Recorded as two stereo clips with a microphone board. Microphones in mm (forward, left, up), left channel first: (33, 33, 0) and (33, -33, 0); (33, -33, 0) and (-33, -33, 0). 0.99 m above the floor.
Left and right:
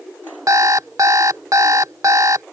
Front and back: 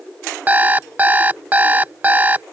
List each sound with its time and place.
0.5 s an alarm clock: 115° right